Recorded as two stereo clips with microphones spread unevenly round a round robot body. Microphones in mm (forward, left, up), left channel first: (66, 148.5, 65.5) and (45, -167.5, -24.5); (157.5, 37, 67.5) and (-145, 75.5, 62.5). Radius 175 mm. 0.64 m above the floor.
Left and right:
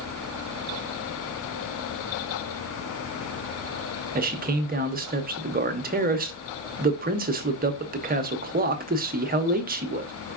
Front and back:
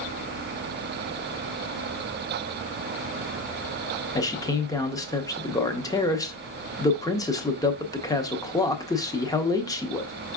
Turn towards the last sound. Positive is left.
turn(degrees=-85)